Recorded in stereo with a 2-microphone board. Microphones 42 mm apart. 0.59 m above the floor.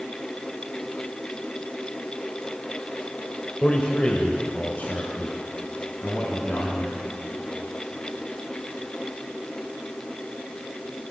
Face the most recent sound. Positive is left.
turn(degrees=45)  # may be behind; listen again after turning